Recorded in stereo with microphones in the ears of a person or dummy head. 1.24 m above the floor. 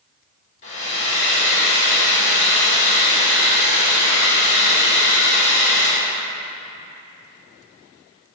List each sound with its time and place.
0.6 s a hair dryer: 35° left (ahead or behind), 1.9 m